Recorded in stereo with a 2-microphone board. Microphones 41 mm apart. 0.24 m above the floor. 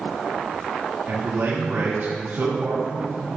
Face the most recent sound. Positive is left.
turn(degrees=-60)  # may be behind; listen again after turning